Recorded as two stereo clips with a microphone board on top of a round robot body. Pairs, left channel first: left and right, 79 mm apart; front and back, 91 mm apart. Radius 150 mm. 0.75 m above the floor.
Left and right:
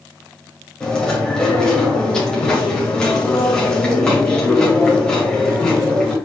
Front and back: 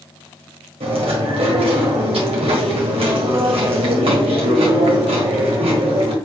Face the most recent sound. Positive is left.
turn(degrees=170)